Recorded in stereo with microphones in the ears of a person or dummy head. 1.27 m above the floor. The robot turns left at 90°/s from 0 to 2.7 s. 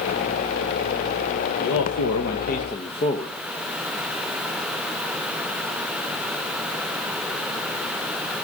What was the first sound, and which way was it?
A man speaking, 130° left.